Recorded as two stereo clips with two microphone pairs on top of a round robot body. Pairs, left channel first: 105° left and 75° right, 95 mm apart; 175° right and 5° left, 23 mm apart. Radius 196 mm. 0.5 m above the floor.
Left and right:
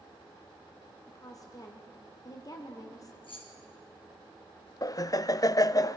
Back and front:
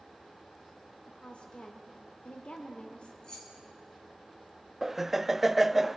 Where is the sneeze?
I don't hear a sneeze.